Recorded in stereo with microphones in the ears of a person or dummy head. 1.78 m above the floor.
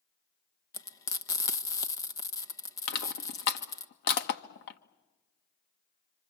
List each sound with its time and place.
0.7 s frying: 25° left (ahead or behind), 1.4 m
2.9 s crushing: 60° left (ahead or behind), 1.4 m